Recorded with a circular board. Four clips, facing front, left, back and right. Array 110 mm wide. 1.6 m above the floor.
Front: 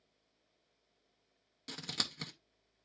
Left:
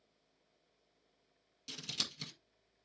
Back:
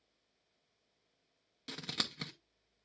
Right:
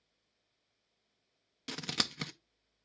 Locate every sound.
1.7 s scissors: 95° right, 0.8 m